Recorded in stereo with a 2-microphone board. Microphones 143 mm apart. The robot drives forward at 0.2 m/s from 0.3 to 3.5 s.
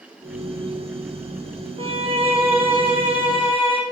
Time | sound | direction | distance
1.8 | a violin | 45° right (ahead or behind) | 2.5 m